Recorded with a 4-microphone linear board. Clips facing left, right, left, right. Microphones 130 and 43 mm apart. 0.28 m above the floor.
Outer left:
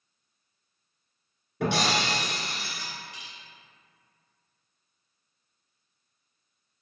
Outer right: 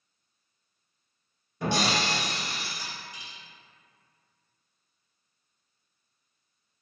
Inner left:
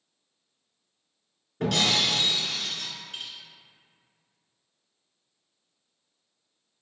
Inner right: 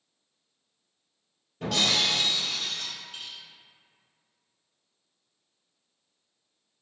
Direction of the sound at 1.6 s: 70° left (ahead or behind).